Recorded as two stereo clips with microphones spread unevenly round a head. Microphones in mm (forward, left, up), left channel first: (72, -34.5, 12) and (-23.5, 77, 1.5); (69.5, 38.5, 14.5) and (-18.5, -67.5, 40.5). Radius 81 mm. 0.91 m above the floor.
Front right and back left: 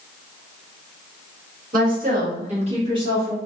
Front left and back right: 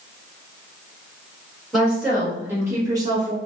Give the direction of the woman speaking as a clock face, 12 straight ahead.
7 o'clock.